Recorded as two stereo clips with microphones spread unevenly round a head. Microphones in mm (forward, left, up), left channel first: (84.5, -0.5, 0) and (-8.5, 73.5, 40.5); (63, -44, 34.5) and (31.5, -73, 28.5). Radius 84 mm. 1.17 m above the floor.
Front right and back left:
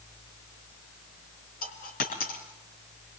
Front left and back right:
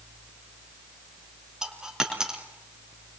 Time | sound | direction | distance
1.6 | a dropped coin | 60° right | 4 m